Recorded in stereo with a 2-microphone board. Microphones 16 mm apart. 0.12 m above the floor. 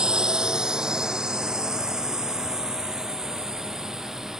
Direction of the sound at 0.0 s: 65° right (ahead or behind).